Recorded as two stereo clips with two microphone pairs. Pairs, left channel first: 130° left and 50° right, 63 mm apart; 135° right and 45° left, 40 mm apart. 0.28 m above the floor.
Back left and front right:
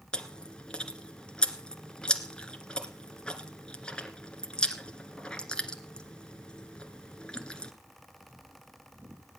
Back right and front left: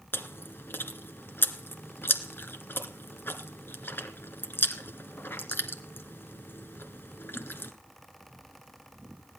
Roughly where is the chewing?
Behind right.